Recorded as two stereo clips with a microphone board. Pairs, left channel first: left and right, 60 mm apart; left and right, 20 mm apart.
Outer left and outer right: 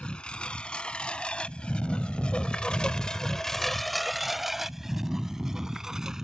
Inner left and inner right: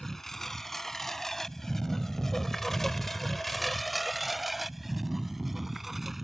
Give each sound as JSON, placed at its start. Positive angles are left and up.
{"t": 0.0, "sound": "a lawn mower", "side_deg": 15}